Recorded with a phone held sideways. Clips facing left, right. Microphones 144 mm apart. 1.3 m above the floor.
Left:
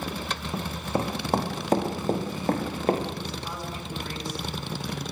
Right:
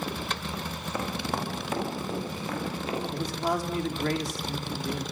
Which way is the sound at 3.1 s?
80° right.